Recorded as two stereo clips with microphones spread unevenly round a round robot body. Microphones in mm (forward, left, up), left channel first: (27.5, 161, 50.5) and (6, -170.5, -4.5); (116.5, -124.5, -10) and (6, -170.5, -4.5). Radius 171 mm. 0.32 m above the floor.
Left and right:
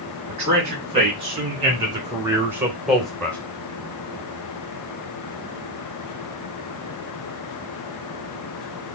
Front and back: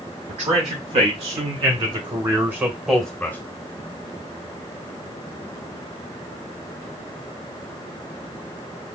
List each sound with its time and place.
0.3 s a man speaking: 160° right, 2.5 m; by 3.4 s 15° right, 1.1 m